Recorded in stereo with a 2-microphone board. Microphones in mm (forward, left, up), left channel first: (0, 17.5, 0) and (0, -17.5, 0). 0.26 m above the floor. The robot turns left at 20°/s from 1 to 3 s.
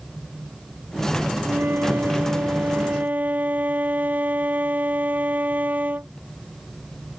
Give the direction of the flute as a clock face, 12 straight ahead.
3 o'clock.